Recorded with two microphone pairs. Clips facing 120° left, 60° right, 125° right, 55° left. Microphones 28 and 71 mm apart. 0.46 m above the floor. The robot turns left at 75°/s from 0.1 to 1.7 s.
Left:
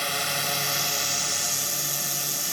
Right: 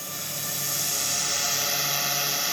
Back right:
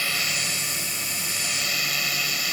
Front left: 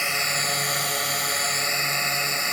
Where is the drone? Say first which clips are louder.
Left 8 dB, front left 3 dB; 120° left; by 2.5 s straight ahead.